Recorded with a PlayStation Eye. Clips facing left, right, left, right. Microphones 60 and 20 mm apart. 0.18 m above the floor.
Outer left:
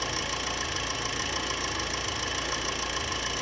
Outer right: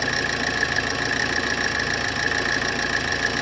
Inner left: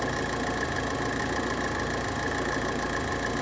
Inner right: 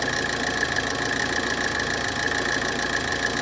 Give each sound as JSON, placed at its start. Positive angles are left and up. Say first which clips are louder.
{"t": 0.0, "sound": "an engine running", "louder": "outer right 9 dB, inner right 4 dB", "side_deg": -65, "distance_m": 1.6}